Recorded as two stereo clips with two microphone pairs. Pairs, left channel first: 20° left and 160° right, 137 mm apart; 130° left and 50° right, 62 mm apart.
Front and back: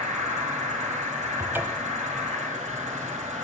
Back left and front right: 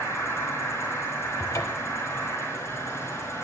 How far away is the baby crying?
No baby crying in this recording.